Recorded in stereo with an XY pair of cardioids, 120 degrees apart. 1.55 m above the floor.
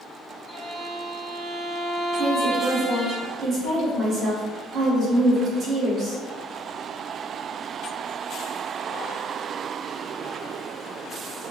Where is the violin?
65° right, 1.0 m.